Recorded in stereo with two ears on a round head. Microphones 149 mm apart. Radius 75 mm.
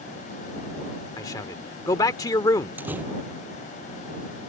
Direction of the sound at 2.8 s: 10° right (ahead or behind).